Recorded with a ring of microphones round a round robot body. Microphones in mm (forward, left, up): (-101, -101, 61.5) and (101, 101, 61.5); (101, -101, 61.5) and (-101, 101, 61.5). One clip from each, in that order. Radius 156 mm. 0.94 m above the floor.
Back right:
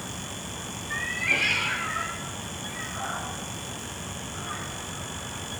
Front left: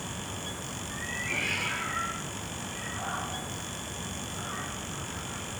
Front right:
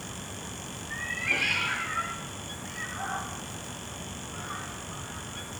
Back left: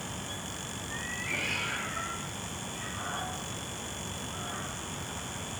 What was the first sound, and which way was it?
A cat meowing, 115° right.